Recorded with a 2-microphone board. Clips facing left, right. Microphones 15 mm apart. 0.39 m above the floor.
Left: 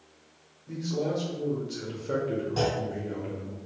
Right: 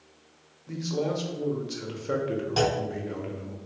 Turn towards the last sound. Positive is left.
turn(degrees=-40)  # may be behind; listen again after turning